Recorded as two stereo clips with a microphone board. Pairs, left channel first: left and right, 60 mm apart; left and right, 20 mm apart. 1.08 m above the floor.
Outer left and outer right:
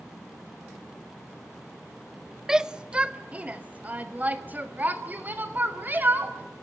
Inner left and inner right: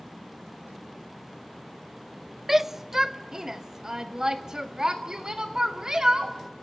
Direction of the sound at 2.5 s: 10° right (ahead or behind).